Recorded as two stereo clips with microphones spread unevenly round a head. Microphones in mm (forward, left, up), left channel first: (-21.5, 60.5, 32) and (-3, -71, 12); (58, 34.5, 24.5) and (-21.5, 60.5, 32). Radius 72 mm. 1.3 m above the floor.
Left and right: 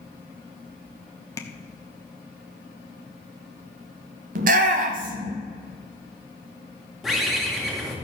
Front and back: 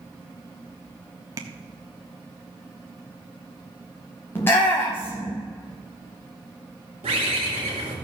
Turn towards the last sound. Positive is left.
turn(degrees=-175)